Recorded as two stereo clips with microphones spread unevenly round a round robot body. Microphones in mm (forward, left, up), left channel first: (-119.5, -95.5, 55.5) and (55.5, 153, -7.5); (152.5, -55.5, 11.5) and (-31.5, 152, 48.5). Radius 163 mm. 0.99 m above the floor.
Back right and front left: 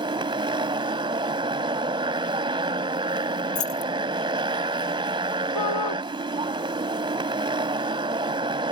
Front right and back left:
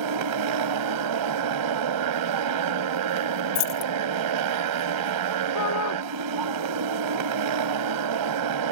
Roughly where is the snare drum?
No snare drum in this recording.